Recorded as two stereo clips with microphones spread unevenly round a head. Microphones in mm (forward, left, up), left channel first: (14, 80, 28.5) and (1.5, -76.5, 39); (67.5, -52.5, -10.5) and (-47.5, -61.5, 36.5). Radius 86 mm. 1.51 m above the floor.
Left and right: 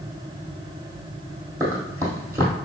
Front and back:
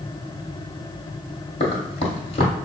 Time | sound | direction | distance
1.6 | running footsteps | 30° right | 1.9 m